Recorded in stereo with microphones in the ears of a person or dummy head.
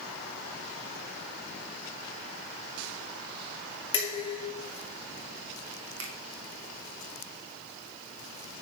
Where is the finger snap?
80° right, 1.9 m.